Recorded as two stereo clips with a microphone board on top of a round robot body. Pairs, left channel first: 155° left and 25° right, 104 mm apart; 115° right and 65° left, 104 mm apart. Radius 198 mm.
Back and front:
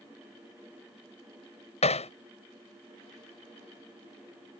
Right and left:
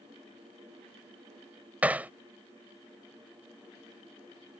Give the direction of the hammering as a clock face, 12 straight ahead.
7 o'clock.